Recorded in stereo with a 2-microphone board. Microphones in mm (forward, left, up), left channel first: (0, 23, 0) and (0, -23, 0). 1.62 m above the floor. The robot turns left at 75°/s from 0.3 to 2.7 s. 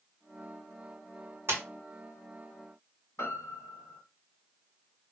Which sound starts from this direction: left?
A piano, at 3.2 s.